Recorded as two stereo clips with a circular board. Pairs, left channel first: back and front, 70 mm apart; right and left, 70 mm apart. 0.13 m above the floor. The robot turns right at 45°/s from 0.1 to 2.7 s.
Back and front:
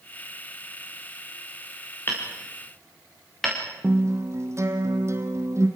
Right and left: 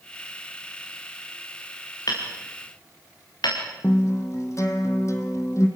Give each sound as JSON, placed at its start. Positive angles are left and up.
{"t": 2.1, "sound": "hammering", "azimuth_deg": -125, "distance_m": 7.5}
{"t": 3.8, "sound": "a guitar", "azimuth_deg": -45, "distance_m": 3.0}